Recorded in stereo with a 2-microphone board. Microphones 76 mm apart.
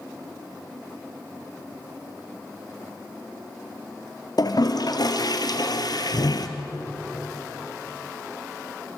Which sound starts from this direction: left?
A toilet flushing, at 4.4 s.